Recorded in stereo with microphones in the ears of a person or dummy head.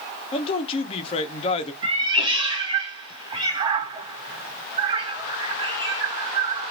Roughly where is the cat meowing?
Right.